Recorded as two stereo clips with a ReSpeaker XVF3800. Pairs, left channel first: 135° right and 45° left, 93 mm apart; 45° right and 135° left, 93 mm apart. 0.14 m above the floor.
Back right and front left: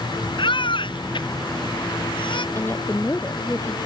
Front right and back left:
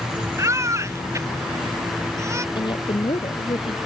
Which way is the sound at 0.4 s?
165° right.